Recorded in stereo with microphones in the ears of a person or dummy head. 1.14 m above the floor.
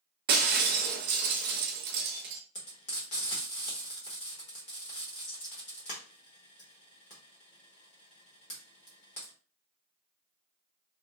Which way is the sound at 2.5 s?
35° left (ahead or behind).